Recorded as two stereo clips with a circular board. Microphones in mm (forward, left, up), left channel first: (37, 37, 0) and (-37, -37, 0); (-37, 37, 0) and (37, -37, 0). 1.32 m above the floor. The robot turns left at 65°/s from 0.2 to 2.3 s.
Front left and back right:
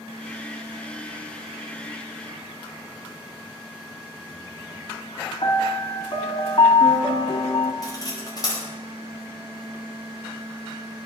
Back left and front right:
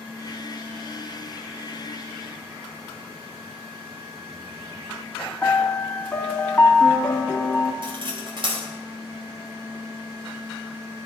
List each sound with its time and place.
5.4 s a piano: 60° left, 1.9 m
7.8 s cutlery clinking: 10° right, 4.5 m